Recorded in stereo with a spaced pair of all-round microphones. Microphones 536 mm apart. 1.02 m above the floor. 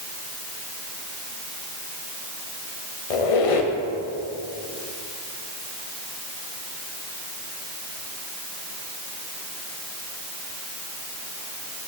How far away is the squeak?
About 0.7 m.